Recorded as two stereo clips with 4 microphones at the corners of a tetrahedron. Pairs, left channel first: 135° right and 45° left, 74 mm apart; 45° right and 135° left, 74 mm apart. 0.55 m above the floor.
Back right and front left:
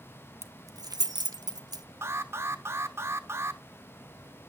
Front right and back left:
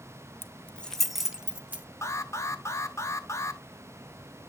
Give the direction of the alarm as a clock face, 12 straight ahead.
12 o'clock.